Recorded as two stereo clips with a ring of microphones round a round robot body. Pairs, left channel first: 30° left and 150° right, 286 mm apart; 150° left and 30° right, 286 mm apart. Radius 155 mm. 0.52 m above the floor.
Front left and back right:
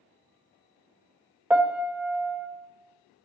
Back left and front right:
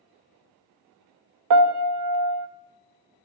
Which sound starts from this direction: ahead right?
A piano, at 1.5 s.